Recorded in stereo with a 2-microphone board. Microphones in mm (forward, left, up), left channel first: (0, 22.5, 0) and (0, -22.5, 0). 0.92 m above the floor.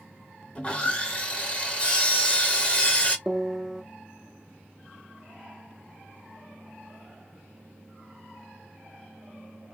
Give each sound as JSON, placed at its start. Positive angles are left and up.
{"t": 0.6, "sound": "sawing", "side_deg": 25, "distance_m": 1.2}
{"t": 3.3, "sound": "a piano", "side_deg": -10, "distance_m": 0.7}